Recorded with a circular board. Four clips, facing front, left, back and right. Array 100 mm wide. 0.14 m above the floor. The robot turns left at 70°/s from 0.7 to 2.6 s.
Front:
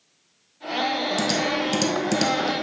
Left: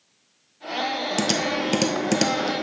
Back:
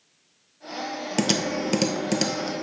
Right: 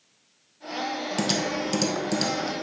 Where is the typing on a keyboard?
160° left, 0.8 m; by 2.6 s 60° left, 0.8 m.